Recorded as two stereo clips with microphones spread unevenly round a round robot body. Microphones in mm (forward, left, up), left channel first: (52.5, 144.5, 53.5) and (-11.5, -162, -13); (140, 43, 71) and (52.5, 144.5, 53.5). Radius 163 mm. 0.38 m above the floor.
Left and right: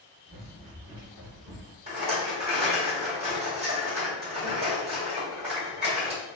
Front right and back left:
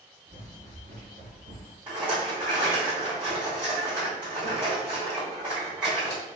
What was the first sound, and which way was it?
Running footsteps, 160° right.